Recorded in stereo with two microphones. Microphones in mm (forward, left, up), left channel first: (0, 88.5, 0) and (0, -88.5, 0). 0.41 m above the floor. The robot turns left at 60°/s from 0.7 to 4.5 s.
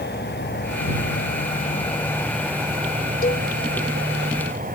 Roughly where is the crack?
No crack in this recording.